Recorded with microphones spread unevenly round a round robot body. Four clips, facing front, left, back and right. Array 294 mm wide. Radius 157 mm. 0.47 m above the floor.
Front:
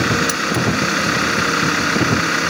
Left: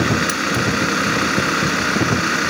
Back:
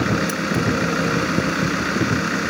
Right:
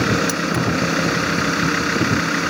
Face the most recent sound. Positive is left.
turn(degrees=-65)